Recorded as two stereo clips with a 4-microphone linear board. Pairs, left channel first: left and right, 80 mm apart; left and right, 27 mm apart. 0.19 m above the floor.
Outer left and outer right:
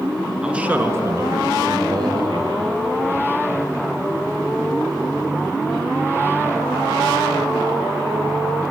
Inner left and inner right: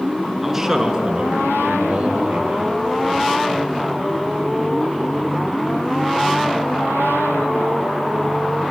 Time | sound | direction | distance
0.4 | a man speaking | 10° right (ahead or behind) | 2.0 m